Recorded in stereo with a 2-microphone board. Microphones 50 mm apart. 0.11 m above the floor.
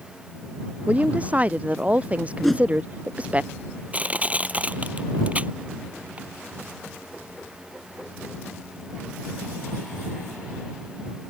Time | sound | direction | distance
0.9 | a woman speaking | 25° right (ahead or behind) | ?
2.4 | a whoosh | centre (ahead or behind) | ?
3.9 | crushing | 30° right (ahead or behind) | ?